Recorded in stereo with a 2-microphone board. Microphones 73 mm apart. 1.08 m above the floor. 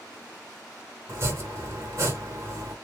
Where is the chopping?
40° right (ahead or behind), 1.4 m.